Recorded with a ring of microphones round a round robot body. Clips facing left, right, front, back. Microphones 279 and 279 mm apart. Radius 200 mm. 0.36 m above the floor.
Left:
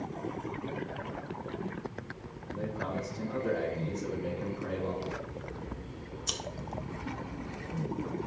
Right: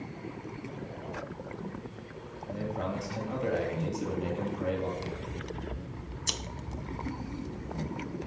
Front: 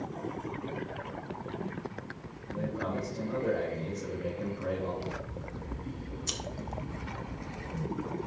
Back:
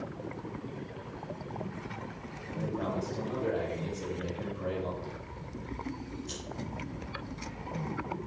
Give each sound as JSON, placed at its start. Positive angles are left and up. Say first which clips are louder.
{"t": 2.5, "sound": "a man speaking", "louder": "right 1 dB, even", "azimuth_deg": -110, "distance_m": 6.5}
{"t": 5.0, "sound": "scissors", "louder": "even, front 4 dB", "azimuth_deg": -30, "distance_m": 1.3}